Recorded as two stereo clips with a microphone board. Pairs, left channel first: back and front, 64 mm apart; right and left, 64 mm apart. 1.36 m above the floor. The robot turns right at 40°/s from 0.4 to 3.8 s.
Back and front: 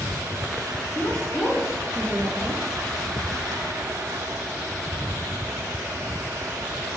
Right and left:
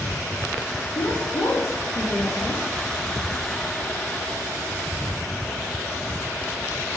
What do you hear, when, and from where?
0.9 s a woman speaking: 110° right, 3 m; by 2.6 s 40° right, 3 m